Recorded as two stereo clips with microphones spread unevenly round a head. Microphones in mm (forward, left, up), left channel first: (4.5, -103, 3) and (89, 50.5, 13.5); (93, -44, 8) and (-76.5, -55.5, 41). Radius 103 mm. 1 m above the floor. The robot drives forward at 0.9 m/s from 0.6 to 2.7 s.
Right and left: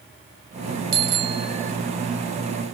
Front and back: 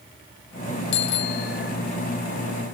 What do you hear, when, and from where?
0.9 s a bicycle bell: 40° left; by 1.7 s 45° left